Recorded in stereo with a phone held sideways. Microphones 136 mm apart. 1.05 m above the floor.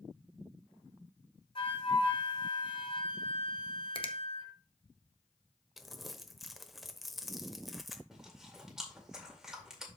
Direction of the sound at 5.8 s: Centre (ahead or behind).